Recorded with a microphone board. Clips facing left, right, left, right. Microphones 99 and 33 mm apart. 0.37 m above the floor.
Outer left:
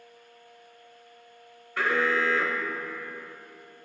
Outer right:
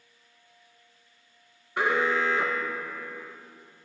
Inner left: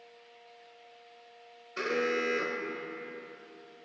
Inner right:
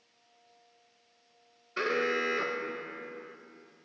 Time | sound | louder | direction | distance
1.8 | an alarm | outer right 1 dB, inner right 1 dB | 20° right (ahead or behind) | 0.9 m